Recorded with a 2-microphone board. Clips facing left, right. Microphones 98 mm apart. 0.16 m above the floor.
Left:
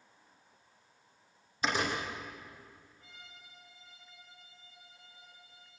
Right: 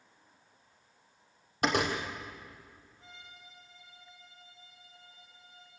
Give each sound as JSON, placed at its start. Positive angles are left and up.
{"t": 1.6, "sound": "a door slam", "side_deg": -65, "distance_m": 4.5}
{"t": 3.0, "sound": "a violin", "side_deg": -25, "distance_m": 9.5}